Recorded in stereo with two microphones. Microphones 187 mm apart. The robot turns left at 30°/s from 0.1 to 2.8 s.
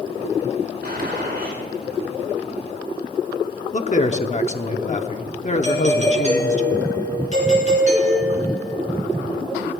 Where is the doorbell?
40° right (ahead or behind), 4 m.